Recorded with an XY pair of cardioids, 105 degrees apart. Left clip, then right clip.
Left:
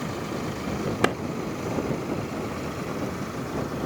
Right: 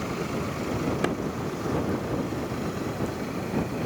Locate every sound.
1.0 s a clap: 50° left